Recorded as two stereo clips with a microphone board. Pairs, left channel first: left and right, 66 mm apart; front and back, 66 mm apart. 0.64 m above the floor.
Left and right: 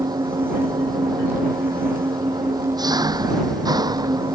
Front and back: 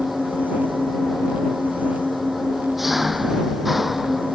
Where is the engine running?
95° right.